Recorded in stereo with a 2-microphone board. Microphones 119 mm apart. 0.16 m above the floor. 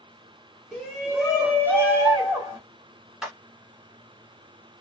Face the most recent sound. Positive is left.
turn(degrees=-5)  # may be behind; listen again after turning